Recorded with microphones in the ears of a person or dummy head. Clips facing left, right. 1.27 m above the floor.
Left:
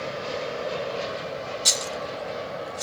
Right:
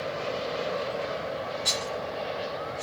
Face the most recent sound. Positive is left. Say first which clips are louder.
# left 1 dB
turn(degrees=50)  # may be behind; listen again after turning